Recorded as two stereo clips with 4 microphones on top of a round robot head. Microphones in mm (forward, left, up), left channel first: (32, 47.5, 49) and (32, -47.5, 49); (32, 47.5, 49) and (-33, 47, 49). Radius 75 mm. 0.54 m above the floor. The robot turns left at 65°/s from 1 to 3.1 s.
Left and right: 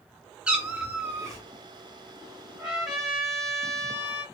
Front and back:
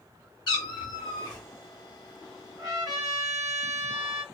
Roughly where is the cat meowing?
Ahead.